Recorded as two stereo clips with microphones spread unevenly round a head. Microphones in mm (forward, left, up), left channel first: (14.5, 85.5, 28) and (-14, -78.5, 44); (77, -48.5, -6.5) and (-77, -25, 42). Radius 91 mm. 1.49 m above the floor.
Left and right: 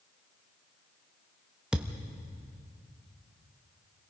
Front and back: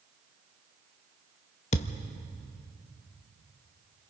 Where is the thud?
35° right, 0.8 m.